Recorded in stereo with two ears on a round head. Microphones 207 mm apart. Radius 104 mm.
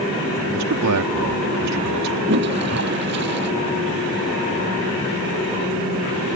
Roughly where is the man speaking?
Right.